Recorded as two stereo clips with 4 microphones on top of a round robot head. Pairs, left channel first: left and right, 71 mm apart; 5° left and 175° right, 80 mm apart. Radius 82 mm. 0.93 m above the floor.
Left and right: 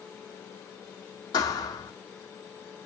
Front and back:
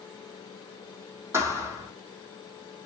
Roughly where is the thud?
Behind left.